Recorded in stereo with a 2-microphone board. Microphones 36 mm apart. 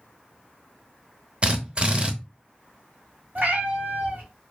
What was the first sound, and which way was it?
A drill, 30° right (ahead or behind).